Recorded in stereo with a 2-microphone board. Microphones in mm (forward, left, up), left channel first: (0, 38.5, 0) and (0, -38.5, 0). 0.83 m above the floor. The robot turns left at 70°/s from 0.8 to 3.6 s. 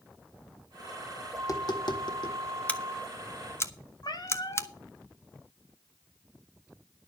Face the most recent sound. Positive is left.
turn(degrees=60)  # may be behind; listen again after turning